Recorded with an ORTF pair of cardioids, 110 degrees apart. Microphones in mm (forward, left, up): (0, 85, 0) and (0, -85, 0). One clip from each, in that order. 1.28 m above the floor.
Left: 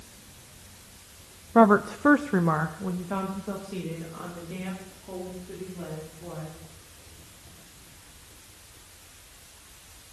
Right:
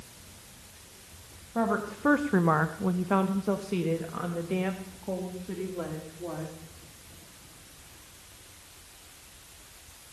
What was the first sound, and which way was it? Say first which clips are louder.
A woman speaking: left 10 dB; 55° left.